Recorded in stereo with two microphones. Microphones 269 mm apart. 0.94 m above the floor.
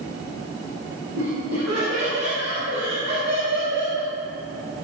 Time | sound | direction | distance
1.1 | laughter | 60° right (ahead or behind) | 5 m